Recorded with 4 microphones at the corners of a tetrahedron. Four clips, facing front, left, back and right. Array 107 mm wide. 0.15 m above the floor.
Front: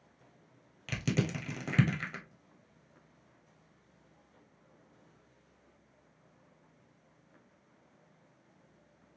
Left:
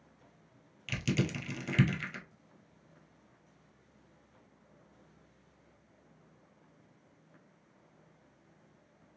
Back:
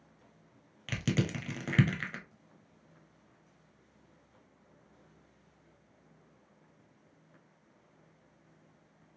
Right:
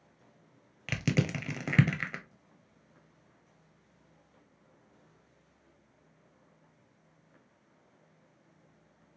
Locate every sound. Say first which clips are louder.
0.9 s crushing: right 2 dB, back 1 dB; 105° right, 1.0 m